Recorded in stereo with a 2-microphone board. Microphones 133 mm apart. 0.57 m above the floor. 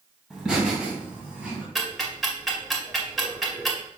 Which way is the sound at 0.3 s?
Centre (ahead or behind).